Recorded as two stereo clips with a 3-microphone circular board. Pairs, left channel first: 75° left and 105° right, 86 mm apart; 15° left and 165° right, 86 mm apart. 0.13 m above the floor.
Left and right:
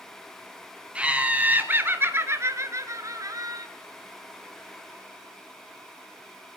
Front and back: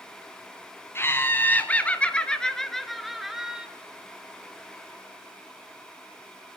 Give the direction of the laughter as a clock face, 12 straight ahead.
1 o'clock.